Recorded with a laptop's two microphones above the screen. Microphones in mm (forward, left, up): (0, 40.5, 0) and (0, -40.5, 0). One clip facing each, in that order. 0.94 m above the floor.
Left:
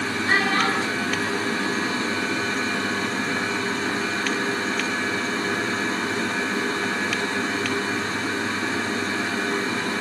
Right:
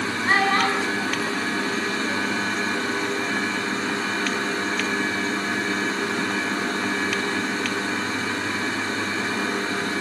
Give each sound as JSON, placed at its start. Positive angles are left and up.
{"t": 0.2, "sound": "a child speaking", "side_deg": -45, "distance_m": 6.5}